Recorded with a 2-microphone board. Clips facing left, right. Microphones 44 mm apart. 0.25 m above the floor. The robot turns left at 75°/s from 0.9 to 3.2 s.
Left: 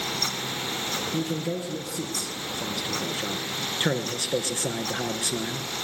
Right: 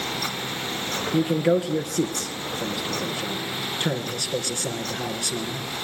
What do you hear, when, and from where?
1.1 s a man speaking: 45° right, 3 m; by 5.7 s 160° left, 3 m